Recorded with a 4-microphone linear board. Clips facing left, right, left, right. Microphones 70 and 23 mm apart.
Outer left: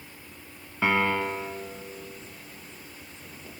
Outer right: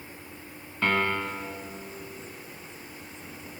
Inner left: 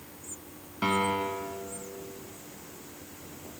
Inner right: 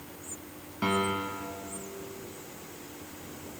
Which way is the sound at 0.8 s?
10° left (ahead or behind).